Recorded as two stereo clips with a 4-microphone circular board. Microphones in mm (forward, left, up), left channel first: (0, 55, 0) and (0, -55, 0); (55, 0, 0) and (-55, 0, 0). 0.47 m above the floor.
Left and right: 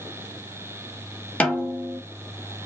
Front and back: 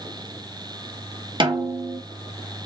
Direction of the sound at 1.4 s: 165° left.